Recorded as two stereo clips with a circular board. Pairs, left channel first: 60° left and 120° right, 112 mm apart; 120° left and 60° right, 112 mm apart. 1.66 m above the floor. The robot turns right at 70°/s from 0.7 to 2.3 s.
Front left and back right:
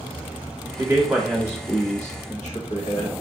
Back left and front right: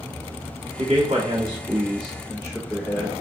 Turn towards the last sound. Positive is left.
turn(degrees=40)